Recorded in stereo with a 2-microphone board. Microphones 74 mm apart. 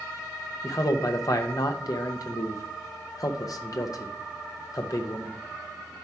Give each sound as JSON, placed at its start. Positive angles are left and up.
{"t": 0.6, "sound": "a man speaking", "side_deg": 55, "distance_m": 0.7}